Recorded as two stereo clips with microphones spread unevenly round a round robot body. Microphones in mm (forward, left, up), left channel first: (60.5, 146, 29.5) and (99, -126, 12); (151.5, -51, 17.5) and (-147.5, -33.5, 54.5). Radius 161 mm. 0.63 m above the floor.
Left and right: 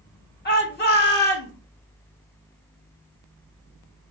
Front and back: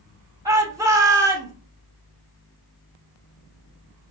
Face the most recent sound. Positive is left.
turn(degrees=95)